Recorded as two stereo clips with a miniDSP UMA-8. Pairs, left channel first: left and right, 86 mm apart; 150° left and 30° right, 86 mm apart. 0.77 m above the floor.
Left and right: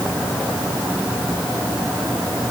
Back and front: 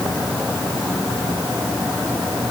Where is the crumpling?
No crumpling in this recording.